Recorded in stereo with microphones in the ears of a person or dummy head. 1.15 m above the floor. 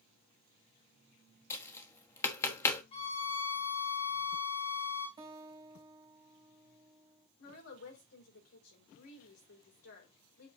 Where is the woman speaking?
80° left, 4.5 m.